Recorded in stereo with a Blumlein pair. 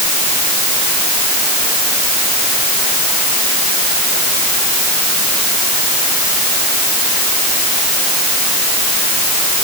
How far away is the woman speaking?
I don't hear a woman speaking.